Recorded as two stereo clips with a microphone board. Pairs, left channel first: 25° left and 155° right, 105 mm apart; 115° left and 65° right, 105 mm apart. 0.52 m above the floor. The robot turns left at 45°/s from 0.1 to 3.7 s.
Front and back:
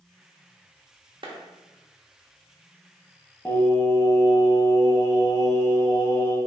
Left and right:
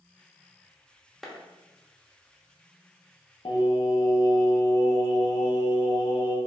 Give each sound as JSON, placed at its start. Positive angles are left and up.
{"t": 1.2, "sound": "a clap", "azimuth_deg": -160, "distance_m": 0.6}
{"t": 3.5, "sound": "singing", "azimuth_deg": 90, "distance_m": 0.6}